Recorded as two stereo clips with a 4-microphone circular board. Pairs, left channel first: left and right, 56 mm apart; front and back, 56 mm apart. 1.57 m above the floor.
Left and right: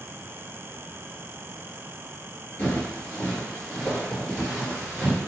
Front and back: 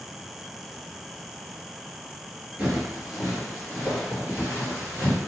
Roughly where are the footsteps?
Behind left.